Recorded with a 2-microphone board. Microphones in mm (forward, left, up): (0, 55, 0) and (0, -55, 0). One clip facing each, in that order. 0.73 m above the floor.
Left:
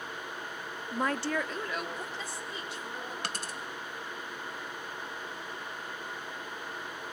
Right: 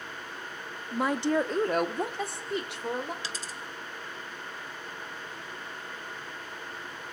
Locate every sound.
0.9 s a woman speaking: centre (ahead or behind), 1.0 m; by 3.1 s 75° right (ahead or behind), 2.5 m
3.2 s a dropped coin: 65° left (ahead or behind), 1.2 m